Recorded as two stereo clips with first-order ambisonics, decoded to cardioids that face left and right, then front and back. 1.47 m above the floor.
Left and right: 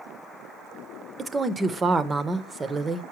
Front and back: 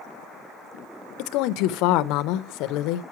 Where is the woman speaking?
15° right, 0.6 m.